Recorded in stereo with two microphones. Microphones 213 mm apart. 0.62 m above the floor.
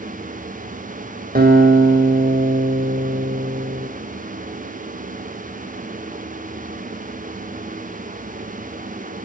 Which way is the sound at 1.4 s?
40° right (ahead or behind).